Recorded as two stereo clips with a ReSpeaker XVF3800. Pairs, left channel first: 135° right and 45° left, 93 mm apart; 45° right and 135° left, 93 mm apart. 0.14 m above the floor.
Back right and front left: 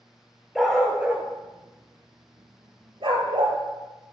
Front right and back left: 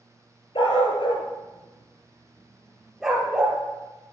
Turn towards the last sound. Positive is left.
turn(degrees=60)